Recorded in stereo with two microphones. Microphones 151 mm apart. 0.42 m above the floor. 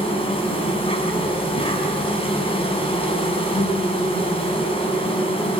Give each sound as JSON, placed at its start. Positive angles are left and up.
{"t": 0.0, "sound": "an insect", "side_deg": 40, "distance_m": 5.5}